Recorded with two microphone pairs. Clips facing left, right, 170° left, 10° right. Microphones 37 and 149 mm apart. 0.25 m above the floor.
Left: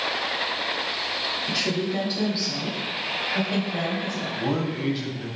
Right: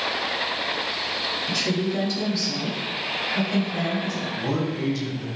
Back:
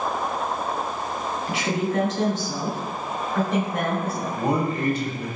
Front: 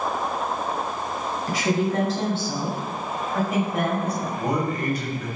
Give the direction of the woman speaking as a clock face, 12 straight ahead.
11 o'clock.